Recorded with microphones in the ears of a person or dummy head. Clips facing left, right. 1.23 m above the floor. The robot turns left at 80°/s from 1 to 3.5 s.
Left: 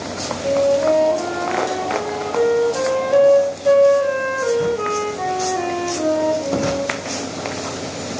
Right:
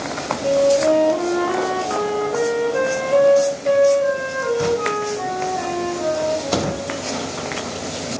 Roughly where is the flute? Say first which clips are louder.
Right 1 dB; ahead.